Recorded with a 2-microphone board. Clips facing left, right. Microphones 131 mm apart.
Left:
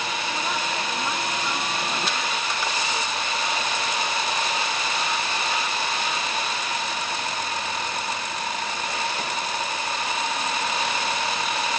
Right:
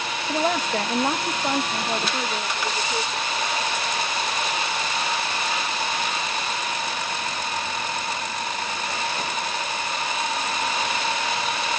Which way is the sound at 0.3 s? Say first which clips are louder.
Right 8 dB; 85° right.